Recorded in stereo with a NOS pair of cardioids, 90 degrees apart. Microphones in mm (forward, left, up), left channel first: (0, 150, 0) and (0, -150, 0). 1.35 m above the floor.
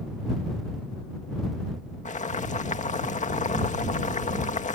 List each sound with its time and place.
2.0 s boiling: 25° left